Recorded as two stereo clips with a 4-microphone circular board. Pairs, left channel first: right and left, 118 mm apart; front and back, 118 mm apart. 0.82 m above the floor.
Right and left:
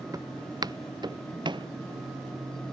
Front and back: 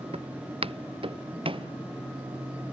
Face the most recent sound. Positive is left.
turn(degrees=140)